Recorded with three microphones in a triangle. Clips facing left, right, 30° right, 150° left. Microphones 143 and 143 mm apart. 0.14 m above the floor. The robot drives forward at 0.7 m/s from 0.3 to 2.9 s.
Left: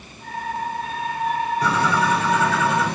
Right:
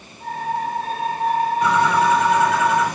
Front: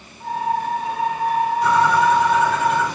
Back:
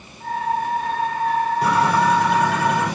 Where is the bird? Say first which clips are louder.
Right 4 dB, front 2 dB; 140° left, 4 m; by 2.9 s 150° left, 5 m.